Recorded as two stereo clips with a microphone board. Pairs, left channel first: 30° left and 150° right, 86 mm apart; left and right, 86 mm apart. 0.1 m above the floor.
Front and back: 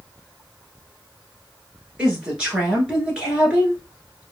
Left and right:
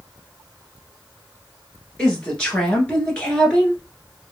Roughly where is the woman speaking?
Behind left.